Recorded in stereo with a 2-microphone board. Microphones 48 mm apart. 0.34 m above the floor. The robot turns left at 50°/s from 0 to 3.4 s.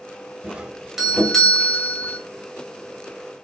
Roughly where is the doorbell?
Behind right.